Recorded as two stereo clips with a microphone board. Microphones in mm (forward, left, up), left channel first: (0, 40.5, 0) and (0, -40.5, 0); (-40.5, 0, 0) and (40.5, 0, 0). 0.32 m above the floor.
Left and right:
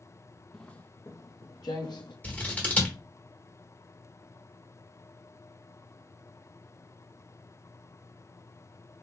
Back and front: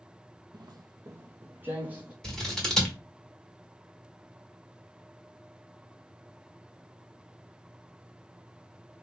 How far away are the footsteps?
About 0.5 m.